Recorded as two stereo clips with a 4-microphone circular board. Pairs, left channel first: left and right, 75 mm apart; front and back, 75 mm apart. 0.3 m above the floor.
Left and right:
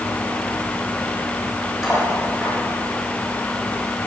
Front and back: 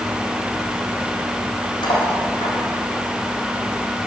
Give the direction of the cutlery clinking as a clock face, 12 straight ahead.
12 o'clock.